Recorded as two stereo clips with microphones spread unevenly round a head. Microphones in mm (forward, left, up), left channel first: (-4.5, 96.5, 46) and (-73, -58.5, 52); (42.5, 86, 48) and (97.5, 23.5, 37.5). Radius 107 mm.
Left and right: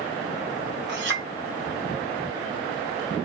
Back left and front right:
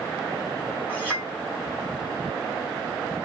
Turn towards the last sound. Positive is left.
turn(degrees=-130)